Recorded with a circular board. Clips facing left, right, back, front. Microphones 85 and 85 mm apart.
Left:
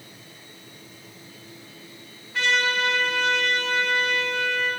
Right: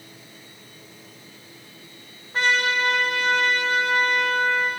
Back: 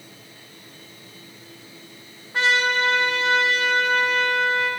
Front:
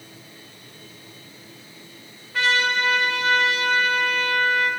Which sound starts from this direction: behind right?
A trumpet, at 2.3 s.